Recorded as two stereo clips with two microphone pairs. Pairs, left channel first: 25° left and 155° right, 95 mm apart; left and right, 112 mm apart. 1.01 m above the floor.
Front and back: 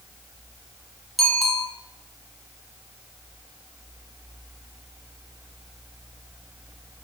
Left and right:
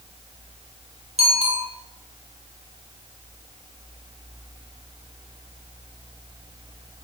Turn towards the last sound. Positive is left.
turn(degrees=-65)